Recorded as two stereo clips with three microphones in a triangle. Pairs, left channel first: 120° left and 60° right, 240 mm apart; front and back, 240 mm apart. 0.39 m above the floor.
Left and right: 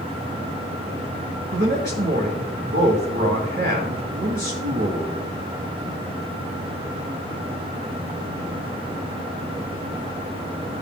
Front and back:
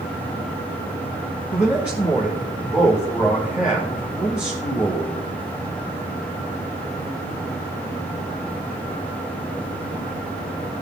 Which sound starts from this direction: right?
A man speaking, at 1.5 s.